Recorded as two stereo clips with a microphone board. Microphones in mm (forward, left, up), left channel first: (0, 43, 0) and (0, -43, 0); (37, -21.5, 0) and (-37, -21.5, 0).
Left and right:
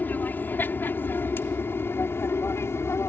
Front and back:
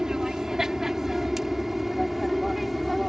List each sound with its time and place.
0.0 s an aircraft: 110° left; by 3.1 s 90° left